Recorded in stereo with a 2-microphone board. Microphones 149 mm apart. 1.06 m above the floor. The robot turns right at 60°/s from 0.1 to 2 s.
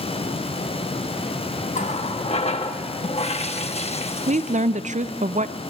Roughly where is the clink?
I don't hear a clink.